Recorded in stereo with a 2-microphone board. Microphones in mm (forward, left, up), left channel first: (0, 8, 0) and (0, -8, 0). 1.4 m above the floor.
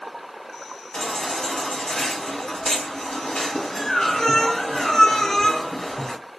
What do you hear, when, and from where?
0.9 s a baby crying: 65° left (ahead or behind), 1.4 m